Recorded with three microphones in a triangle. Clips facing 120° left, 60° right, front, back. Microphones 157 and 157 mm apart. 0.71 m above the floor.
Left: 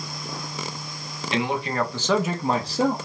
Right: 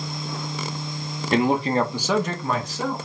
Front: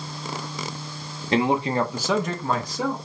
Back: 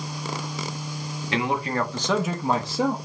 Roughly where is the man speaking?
Ahead right.